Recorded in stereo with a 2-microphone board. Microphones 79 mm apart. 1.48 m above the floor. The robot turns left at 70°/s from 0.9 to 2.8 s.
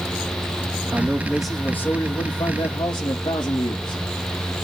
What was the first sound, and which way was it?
A man speaking, 145° right.